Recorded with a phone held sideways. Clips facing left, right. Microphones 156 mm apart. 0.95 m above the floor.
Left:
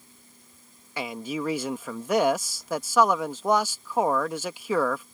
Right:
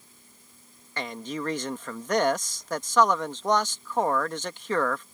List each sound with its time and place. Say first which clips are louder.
1.0 s a man speaking: left 2 dB; 10° left (ahead or behind)